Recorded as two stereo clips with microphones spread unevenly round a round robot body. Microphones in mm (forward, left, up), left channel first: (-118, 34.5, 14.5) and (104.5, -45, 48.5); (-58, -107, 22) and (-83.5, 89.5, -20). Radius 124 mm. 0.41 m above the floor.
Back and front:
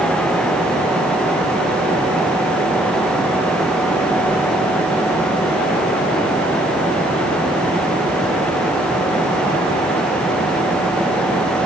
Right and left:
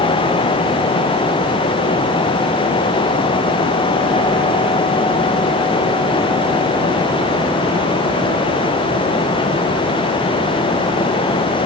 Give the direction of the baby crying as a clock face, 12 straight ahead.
No baby crying in this recording.